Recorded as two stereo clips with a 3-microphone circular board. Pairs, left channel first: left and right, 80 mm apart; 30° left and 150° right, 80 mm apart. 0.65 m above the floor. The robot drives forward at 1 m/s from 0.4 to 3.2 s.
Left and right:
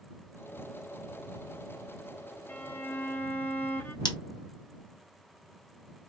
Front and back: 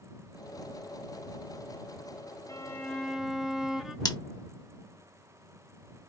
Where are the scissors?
70° left, 1.2 m.